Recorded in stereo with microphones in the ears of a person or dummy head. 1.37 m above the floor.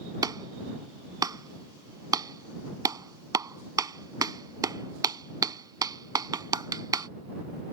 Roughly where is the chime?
I don't hear a chime.